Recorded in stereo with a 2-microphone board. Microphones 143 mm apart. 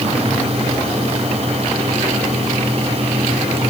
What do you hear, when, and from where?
Only background noise.